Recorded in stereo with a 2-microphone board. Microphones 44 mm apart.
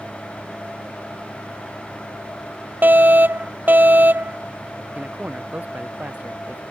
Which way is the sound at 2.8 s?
50° right (ahead or behind).